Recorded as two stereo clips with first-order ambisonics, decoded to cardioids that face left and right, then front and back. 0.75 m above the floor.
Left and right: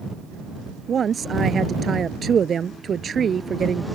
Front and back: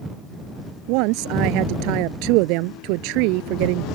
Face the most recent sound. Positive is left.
turn(degrees=-160)